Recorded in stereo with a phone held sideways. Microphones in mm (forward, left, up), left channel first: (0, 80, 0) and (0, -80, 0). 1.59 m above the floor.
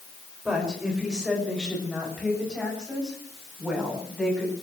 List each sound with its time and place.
0.5 s a woman speaking: 5° right (ahead or behind), 6.5 m